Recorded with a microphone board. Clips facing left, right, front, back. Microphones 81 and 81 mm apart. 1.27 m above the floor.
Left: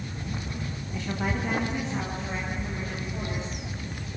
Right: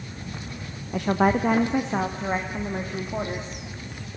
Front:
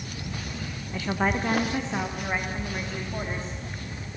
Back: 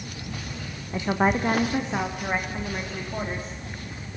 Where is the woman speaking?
110° right, 0.9 m; by 3.6 s 100° right, 2.5 m.